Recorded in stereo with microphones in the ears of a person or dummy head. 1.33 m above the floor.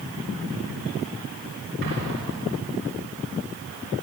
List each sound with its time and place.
1.8 s an explosion: 50° right (ahead or behind), 6 m